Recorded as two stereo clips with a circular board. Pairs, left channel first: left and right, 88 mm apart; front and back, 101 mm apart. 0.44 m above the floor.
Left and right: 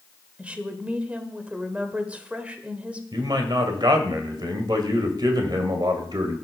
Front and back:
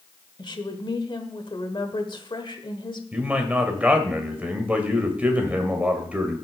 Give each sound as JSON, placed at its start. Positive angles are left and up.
{"t": 0.4, "sound": "a woman speaking", "azimuth_deg": -20, "distance_m": 1.5}
{"t": 3.1, "sound": "a man speaking", "azimuth_deg": -110, "distance_m": 1.9}